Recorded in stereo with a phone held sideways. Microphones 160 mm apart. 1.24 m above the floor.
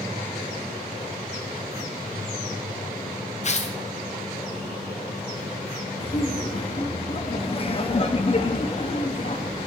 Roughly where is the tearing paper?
Left.